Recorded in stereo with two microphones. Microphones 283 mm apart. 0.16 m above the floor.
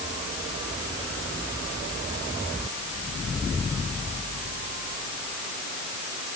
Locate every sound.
Only background noise.